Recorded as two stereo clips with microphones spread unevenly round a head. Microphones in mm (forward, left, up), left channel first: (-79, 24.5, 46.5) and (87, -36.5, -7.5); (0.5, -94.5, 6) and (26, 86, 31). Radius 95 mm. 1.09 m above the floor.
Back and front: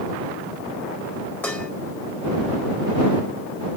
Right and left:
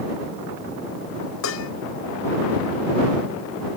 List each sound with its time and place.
1.4 s dishes clattering: 120° right